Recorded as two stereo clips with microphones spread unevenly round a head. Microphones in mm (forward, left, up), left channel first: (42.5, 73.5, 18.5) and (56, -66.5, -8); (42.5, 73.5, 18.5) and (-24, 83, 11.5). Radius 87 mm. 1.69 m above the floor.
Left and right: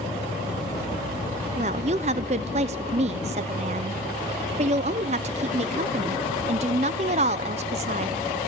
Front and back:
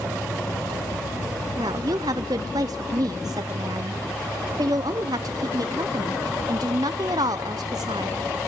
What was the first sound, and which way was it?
A woman speaking, 140° right.